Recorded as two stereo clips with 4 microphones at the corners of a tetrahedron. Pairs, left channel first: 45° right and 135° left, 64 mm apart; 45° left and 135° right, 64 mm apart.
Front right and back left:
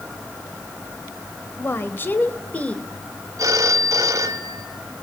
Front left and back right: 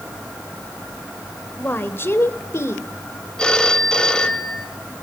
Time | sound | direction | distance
1.6 | a woman speaking | 5° right | 2 m
3.4 | a phone ringing | 120° left | 1.7 m